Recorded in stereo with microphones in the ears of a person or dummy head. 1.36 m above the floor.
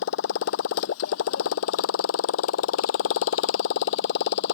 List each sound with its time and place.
0.0 s a motorcycle: 70° left (ahead or behind); by 4.5 s 65° left (ahead or behind)